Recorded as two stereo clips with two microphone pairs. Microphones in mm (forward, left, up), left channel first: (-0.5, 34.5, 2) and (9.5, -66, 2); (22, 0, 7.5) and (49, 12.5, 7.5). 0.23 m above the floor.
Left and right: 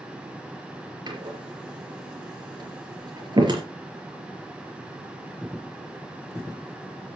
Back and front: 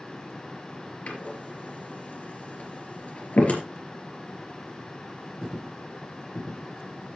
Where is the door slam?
125° right, 4 m.